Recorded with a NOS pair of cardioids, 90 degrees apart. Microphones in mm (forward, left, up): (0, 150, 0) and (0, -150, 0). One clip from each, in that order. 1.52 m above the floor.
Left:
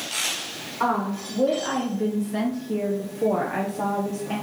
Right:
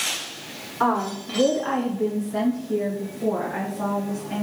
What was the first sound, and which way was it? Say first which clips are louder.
A woman speaking: right 2 dB; 20° right.